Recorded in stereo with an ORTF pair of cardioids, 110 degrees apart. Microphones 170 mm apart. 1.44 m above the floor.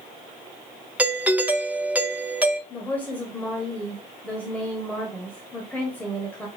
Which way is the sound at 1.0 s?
10° right.